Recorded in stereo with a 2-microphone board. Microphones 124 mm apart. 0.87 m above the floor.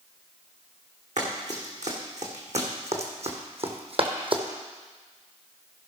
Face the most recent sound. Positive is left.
turn(degrees=-45)  # may be behind; listen again after turning